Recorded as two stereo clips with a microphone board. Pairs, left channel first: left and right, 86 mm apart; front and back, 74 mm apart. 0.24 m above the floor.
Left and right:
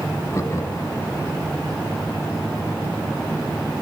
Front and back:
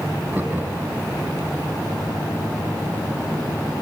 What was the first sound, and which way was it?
Laughter, 125° left.